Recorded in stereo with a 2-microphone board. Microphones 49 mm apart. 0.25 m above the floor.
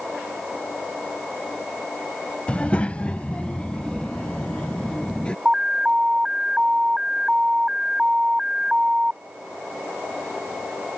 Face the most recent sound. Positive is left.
turn(degrees=-15)  # may be behind; listen again after turning